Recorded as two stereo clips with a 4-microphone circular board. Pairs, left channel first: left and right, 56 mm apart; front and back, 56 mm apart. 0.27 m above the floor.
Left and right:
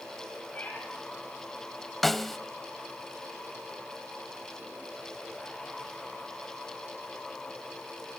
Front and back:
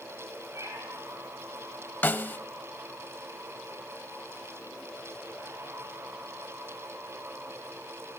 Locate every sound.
0.6 s a cat meowing: 150° left, 3.5 m
2.0 s a snare drum: 5° left, 0.6 m